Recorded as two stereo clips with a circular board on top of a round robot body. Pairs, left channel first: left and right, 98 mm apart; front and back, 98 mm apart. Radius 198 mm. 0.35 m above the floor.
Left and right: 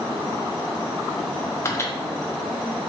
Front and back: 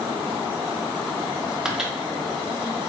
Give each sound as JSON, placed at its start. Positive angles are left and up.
{"t": 1.6, "sound": "a microwave", "azimuth_deg": 105, "distance_m": 0.8}